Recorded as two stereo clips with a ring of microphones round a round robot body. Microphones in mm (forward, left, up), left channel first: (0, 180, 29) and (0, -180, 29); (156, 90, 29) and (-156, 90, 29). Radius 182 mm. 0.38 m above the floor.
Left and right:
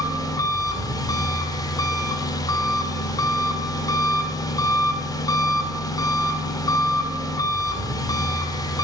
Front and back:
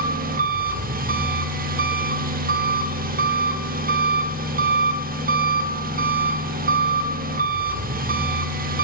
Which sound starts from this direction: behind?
An engine running, at 0.0 s.